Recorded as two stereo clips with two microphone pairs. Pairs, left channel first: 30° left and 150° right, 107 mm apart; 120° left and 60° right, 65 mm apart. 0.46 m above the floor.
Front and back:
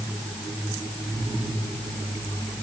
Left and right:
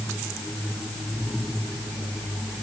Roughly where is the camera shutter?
No camera shutter in this recording.